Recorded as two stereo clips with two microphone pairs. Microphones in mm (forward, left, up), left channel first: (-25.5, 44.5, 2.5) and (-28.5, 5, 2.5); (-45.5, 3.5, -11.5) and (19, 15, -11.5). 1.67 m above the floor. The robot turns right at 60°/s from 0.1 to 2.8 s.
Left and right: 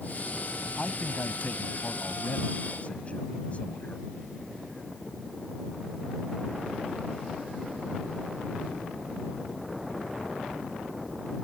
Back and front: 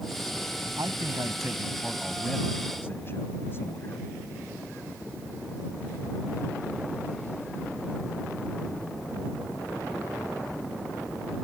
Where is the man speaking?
20° left; by 4.1 s 140° left.